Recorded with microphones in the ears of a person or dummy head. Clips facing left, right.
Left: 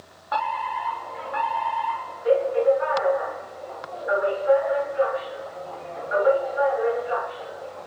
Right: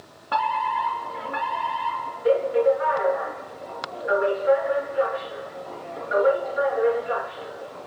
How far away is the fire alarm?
About 4 m.